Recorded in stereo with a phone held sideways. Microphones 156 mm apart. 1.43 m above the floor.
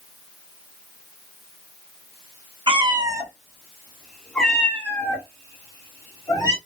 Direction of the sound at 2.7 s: 30° right (ahead or behind).